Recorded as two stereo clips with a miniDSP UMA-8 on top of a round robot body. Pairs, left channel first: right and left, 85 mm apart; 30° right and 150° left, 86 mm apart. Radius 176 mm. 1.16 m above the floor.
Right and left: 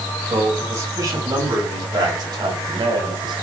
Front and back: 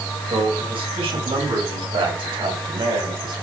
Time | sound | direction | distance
0.3 | a man speaking | 150° left | 6.5 m